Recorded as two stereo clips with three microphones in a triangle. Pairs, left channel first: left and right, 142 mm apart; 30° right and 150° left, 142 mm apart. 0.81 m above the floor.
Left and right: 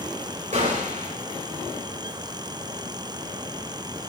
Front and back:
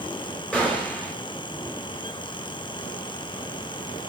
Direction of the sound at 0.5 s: 115° right.